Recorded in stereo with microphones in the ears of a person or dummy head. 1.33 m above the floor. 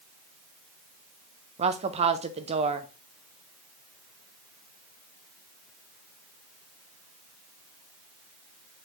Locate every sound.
1.6 s a woman speaking: 30° right (ahead or behind), 0.6 m